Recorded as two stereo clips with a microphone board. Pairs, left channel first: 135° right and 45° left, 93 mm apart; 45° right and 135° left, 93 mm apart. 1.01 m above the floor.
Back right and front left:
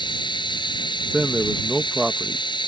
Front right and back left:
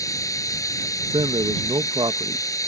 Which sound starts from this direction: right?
Running water, at 0.0 s.